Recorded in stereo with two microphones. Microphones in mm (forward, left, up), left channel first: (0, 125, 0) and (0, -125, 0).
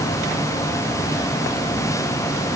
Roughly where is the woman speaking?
No woman speaking in this recording.